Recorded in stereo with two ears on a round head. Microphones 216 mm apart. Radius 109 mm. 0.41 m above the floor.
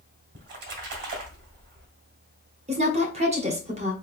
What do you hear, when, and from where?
0.3 s a splash: 45° right (ahead or behind), 1.8 m
2.7 s a woman speaking: 30° right (ahead or behind), 1.2 m